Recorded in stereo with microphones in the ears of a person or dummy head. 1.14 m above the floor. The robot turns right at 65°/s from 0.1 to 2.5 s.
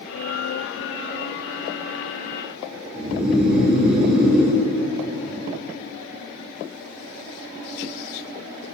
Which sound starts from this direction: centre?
Snoring, at 3.0 s.